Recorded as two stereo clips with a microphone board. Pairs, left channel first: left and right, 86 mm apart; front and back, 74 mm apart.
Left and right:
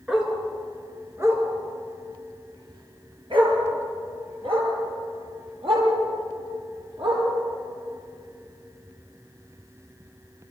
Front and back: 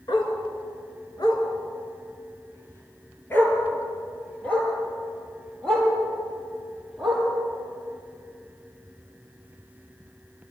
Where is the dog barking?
10° right, 4 m; by 7.2 s 85° right, 10.5 m.